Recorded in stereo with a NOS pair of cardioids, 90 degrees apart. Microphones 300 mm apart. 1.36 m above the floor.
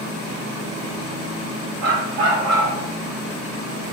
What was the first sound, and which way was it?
A dog barking, 65° right.